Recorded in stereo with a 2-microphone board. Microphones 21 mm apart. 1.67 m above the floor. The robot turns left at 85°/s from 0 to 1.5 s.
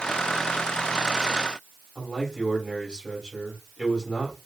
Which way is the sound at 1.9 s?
35° left (ahead or behind).